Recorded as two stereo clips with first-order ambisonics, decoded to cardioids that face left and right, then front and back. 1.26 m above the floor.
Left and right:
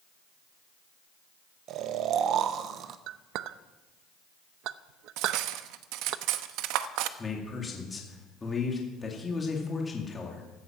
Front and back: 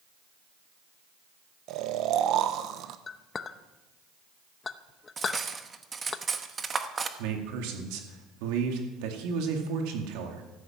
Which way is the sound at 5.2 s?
110° right.